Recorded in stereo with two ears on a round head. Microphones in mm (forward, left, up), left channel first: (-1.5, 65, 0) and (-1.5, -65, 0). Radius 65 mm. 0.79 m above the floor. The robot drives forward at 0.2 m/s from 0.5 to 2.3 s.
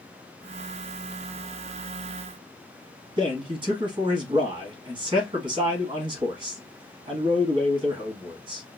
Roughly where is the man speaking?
Right.